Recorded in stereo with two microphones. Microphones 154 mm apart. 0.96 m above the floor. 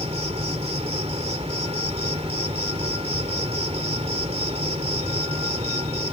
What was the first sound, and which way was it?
An insect, 40° right (ahead or behind).